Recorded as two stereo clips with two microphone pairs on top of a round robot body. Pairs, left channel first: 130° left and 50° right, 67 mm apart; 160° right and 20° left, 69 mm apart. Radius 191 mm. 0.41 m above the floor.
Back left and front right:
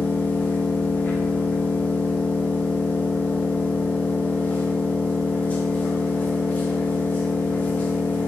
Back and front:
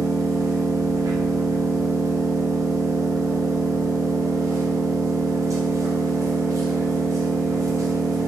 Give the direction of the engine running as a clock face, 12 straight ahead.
10 o'clock.